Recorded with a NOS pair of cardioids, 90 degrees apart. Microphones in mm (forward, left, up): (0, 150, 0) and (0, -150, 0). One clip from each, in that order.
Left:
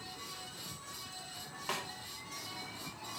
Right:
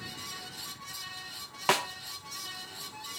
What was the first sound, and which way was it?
A fan, 45° right.